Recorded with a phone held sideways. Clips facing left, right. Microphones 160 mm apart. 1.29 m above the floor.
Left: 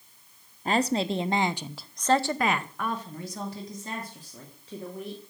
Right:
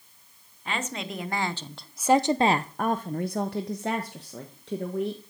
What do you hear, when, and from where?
0.7 s a woman speaking: 40° left (ahead or behind), 1.0 m; by 5.2 s 80° right, 1.8 m